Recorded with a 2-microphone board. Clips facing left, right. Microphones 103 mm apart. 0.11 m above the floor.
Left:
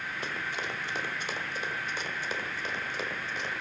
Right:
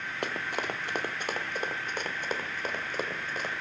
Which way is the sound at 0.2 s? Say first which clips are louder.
Right 5 dB; 65° right (ahead or behind).